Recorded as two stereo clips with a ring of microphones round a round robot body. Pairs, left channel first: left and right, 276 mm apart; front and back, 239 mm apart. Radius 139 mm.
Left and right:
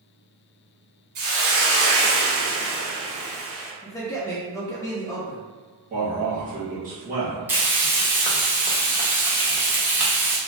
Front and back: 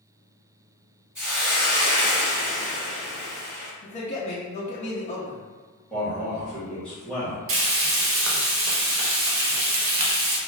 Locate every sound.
1.1 s a hiss: 95° right, 1.3 m
3.8 s a man speaking: 25° left, 0.5 m
5.9 s a man speaking: 80° right, 1.1 m
7.5 s frying: 170° right, 0.6 m